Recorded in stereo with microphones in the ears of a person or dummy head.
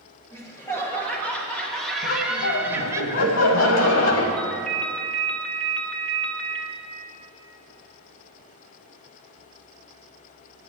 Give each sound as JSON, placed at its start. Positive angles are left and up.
{"t": 0.3, "sound": "laughter", "side_deg": 15, "distance_m": 2.5}
{"t": 2.0, "sound": "laughter", "side_deg": 75, "distance_m": 1.6}
{"t": 4.4, "sound": "a ringtone", "side_deg": 5, "distance_m": 1.3}